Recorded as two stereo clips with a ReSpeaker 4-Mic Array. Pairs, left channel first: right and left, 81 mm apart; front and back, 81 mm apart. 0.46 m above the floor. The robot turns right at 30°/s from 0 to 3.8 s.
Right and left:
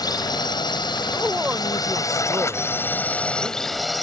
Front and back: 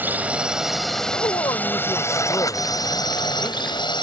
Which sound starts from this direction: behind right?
A drone, at 0.0 s.